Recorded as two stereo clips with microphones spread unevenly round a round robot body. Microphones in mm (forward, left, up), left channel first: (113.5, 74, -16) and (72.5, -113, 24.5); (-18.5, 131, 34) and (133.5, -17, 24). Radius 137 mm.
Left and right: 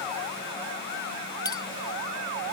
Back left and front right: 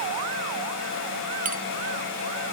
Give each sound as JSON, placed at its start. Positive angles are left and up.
{"t": 1.4, "sound": "a clink", "azimuth_deg": 5}